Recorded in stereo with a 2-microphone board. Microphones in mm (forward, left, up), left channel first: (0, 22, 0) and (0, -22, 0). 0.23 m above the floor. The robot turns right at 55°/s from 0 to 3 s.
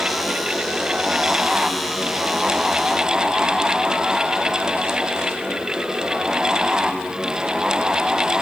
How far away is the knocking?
No knocking in this recording.